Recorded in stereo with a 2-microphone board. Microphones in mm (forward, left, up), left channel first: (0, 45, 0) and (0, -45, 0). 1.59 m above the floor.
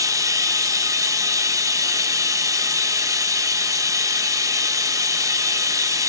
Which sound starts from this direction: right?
Running water, at 0.0 s.